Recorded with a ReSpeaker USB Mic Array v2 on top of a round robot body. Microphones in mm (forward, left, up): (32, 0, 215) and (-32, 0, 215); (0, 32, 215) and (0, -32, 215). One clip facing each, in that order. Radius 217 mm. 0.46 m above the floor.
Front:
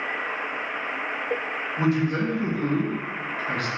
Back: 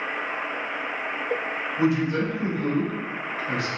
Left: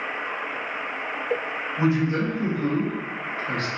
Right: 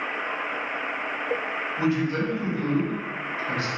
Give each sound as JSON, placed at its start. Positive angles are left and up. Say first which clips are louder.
{"t": 1.8, "sound": "a man speaking", "louder": "back 1 dB, left 2 dB", "azimuth_deg": 30, "distance_m": 1.3}